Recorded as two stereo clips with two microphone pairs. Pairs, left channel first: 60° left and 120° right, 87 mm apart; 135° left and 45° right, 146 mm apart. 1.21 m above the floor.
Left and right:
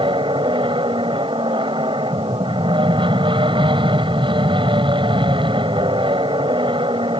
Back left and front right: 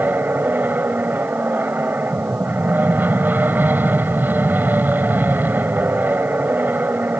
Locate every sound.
0.0 s an aircraft: 125° right